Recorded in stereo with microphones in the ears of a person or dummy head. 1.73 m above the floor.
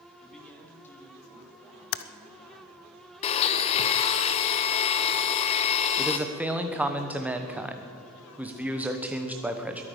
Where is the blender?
35° left (ahead or behind), 0.8 m.